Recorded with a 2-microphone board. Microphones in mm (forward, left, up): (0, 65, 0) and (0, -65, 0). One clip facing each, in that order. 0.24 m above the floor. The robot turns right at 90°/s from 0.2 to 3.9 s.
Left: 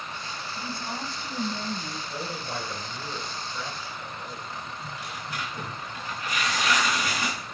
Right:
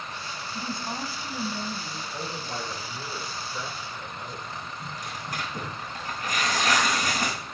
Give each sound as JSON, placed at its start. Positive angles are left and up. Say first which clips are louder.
{"t": 0.6, "sound": "a woman speaking", "louder": "right 2 dB", "azimuth_deg": -55, "distance_m": 1.2}
{"t": 2.1, "sound": "a man speaking", "louder": "left 1 dB", "azimuth_deg": 50, "distance_m": 3.5}
{"t": 4.8, "sound": "tearing paper", "louder": "even", "side_deg": -40, "distance_m": 4.5}